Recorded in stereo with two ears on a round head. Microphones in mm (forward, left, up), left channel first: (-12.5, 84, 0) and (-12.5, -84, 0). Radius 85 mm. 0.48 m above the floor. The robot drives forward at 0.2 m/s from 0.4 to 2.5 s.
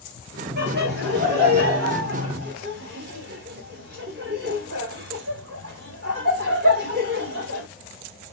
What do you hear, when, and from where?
0.6 s laughter: 60° right (ahead or behind), 1.7 m; by 7.7 s 55° right (ahead or behind), 1.7 m